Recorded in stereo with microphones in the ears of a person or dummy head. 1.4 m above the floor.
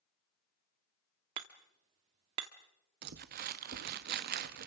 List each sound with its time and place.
1.4 s hammering: 20° right (ahead or behind), 1.0 m
3.0 s crumpling: 50° right (ahead or behind), 1.1 m